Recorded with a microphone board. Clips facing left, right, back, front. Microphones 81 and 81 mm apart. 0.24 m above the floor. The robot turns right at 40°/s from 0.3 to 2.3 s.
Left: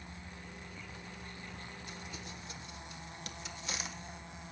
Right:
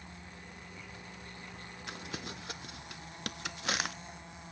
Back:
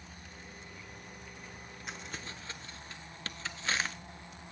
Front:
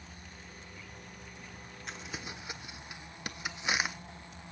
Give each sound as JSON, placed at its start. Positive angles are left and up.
{"t": 1.9, "sound": "crumpling", "azimuth_deg": -95, "distance_m": 0.6}